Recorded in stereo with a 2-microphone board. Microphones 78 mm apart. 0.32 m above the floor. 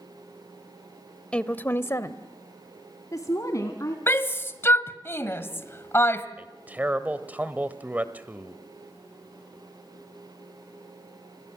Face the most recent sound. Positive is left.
turn(degrees=-20)  # may be behind; listen again after turning